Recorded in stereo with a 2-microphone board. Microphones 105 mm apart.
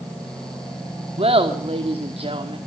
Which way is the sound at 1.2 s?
70° right (ahead or behind).